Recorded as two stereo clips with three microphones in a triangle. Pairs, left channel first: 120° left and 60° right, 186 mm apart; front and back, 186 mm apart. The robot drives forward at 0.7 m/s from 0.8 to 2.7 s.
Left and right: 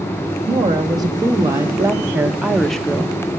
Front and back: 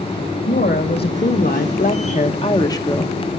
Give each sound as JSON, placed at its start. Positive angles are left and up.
{"t": 0.5, "sound": "a woman speaking", "azimuth_deg": 5, "distance_m": 1.8}